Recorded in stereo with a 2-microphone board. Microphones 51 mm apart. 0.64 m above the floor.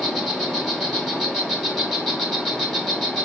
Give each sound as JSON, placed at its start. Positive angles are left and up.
{"t": 0.0, "sound": "an insect", "side_deg": 5, "distance_m": 2.0}